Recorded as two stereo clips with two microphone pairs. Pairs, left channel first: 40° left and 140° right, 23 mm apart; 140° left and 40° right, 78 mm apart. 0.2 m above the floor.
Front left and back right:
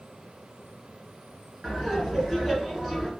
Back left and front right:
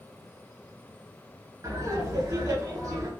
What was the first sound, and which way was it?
Laughter, 75° right.